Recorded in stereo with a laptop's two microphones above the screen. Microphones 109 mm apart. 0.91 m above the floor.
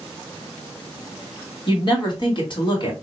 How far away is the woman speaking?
About 1.4 m.